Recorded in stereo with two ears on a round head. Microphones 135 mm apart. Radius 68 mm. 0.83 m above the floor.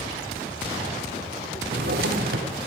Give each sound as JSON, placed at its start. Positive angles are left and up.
{"t": 1.6, "sound": "a drawer", "side_deg": -65, "distance_m": 1.4}